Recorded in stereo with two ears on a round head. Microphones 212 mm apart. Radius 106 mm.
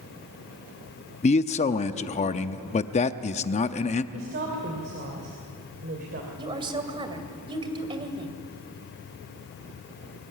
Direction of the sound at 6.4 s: 20° right (ahead or behind).